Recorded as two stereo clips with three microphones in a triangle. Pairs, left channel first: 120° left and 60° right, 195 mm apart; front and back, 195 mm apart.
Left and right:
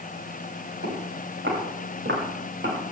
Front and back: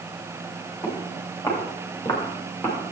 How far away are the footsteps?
About 7 m.